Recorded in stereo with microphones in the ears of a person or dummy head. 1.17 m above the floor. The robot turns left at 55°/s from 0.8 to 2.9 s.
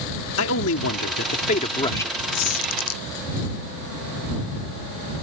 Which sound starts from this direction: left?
A man speaking, at 0.4 s.